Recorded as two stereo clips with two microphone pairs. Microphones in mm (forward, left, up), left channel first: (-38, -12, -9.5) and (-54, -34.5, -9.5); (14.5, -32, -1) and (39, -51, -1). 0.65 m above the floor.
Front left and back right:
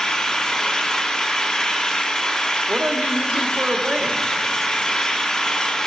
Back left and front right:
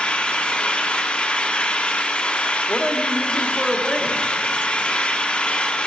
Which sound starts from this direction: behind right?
A woman speaking, at 2.7 s.